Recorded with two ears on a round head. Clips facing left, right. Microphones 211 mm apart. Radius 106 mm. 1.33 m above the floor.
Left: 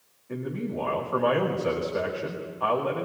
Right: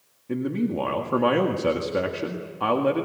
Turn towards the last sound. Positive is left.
turn(degrees=-50)  # may be behind; listen again after turning